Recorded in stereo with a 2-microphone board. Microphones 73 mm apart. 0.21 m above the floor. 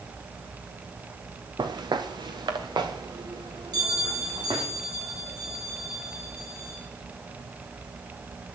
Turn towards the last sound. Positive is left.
turn(degrees=-70)  # may be behind; listen again after turning